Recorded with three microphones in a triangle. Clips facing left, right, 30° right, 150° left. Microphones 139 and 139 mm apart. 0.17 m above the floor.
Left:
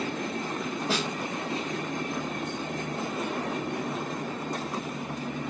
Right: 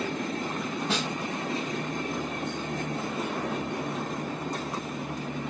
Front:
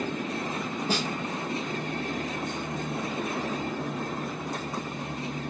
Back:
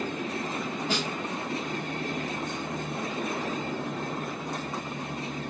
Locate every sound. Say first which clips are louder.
0.9 s a snare drum: left 2 dB, front 2 dB; 5° left, 1.4 m